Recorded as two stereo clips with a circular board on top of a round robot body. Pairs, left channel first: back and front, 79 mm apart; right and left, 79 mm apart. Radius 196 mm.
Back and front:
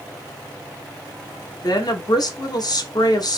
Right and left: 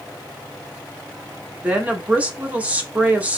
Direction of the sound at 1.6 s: 160° left.